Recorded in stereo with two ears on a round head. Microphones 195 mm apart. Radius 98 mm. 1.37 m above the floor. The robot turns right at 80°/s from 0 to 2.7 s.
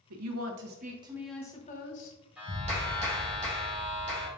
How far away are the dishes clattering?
No dishes clattering in this recording.